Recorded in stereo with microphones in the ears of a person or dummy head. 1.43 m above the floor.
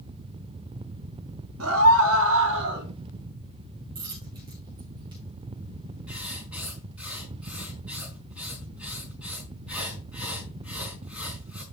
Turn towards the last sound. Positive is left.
turn(degrees=-5)  # may be behind; listen again after turning